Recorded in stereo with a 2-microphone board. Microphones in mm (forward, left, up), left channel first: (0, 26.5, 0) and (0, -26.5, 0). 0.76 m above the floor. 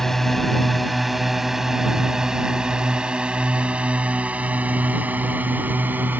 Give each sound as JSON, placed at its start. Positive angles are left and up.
{"t": 0.0, "sound": "a drone", "side_deg": 5}